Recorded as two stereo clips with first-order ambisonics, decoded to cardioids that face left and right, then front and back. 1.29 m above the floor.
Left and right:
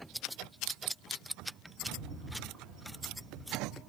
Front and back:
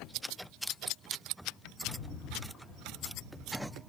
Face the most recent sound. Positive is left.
turn(degrees=-40)